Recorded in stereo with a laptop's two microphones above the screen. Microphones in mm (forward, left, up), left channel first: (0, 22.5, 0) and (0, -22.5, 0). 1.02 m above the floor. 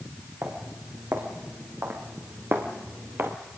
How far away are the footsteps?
About 5 m.